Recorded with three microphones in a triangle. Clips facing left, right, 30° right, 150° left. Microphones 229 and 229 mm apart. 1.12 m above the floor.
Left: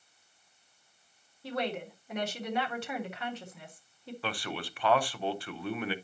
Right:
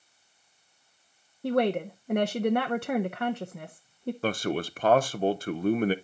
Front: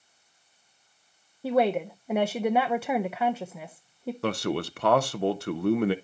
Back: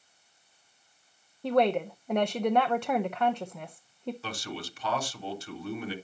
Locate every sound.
1.4 s a woman speaking: 115° right, 0.6 m
4.2 s a man speaking: 45° right, 0.7 m